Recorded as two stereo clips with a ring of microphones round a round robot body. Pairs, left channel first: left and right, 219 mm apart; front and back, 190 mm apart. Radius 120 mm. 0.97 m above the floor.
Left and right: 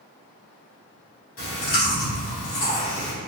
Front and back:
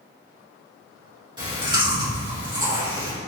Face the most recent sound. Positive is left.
turn(degrees=115)